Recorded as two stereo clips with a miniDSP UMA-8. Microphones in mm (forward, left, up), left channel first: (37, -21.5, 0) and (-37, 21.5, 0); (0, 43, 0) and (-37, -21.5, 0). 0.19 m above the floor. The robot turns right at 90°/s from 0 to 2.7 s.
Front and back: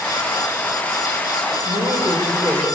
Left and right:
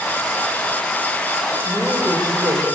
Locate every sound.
1.6 s a woman speaking: 150° left, 8.5 m; by 2.6 s 125° right, 8.5 m